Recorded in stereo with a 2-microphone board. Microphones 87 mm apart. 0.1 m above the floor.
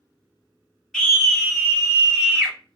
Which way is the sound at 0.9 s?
Centre (ahead or behind).